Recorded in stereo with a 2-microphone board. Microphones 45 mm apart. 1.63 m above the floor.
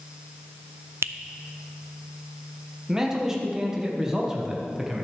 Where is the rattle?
I don't hear a rattle.